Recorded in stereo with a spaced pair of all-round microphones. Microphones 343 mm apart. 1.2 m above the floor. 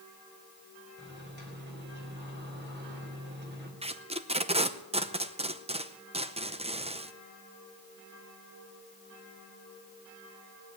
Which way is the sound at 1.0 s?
30° right (ahead or behind).